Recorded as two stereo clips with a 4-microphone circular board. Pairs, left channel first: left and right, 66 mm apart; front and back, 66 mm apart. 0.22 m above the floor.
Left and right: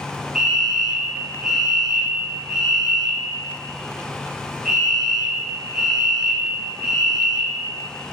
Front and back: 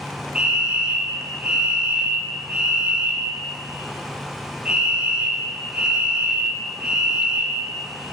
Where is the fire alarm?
155° right, 1.9 m.